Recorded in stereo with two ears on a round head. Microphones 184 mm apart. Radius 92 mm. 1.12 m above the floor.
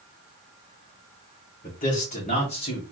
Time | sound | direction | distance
1.6 | a man speaking | 40° left (ahead or behind) | 3 m